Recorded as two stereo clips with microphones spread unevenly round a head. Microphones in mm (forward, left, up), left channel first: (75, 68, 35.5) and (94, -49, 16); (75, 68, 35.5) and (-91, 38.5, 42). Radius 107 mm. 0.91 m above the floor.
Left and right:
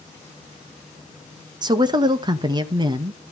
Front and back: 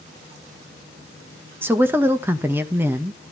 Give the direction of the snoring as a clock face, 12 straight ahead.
I don't hear snoring.